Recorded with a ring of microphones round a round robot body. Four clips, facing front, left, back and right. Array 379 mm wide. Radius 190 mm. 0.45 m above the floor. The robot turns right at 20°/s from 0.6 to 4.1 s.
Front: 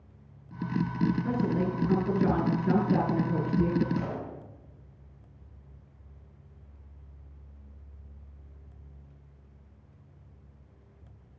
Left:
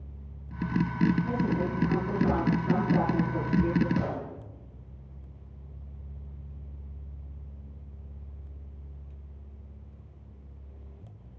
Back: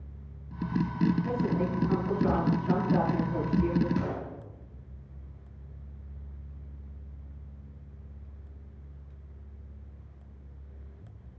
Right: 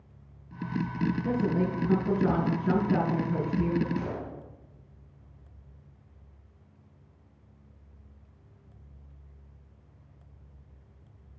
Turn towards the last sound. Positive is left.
turn(degrees=110)